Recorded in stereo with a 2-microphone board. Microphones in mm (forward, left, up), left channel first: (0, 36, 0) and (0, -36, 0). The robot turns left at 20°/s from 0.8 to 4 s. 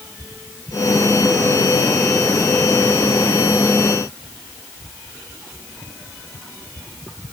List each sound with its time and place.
Only background noise.